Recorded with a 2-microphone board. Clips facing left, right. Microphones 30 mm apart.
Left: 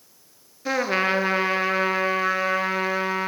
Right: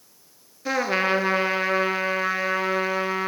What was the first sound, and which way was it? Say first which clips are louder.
A trumpet: even; centre (ahead or behind).